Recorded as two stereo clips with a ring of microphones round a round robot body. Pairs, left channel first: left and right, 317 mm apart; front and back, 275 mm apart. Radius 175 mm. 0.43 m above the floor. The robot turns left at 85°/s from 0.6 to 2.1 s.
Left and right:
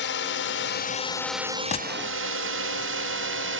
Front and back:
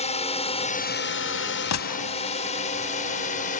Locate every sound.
0.0 s a drone: 55° left; by 3.6 s 55° right
1.7 s a gunshot: 20° left; by 2.2 s 10° right